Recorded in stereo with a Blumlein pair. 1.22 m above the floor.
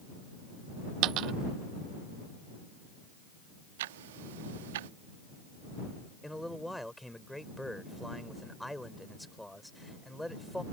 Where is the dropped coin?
35° right.